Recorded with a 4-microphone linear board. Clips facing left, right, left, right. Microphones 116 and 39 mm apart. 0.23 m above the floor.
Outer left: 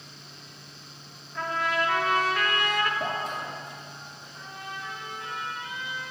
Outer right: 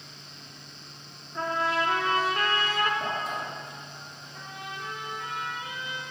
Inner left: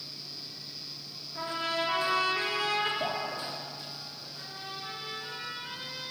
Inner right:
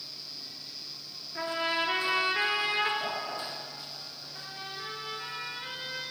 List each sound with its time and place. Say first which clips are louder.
1.4 s a trumpet: outer right 1 dB, inner right 2 dB; 30° right (ahead or behind), 1.5 m
3.0 s dripping: outer left 1 dB, inner left 2 dB; 30° left (ahead or behind), 4 m
4.3 s a trumpet: even, inner right 1 dB; 70° right (ahead or behind), 3.5 m